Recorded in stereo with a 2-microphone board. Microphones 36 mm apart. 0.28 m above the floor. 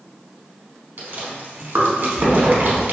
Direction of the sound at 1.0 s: 65° right (ahead or behind).